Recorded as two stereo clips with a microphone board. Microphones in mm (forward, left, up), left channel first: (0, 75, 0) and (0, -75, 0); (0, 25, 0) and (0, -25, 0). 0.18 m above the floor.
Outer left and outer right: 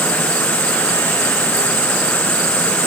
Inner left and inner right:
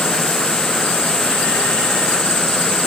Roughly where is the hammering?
No hammering in this recording.